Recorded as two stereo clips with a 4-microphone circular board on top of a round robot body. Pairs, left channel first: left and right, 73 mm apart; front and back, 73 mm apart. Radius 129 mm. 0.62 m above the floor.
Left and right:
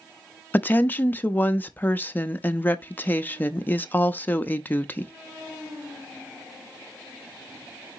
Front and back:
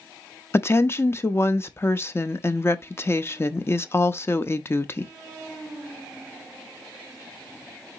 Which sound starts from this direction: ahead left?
A woman speaking, at 0.5 s.